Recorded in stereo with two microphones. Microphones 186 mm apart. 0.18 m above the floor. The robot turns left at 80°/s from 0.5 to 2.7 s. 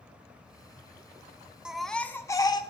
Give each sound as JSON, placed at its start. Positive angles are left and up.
{"t": 1.6, "sound": "a baby crying", "side_deg": -5, "distance_m": 1.0}